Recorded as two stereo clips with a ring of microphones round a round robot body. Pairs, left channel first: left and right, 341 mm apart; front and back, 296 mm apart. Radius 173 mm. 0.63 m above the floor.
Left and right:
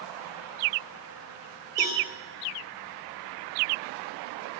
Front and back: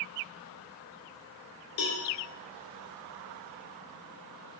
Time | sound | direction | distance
1.8 | a cowbell | 10° left | 1.8 m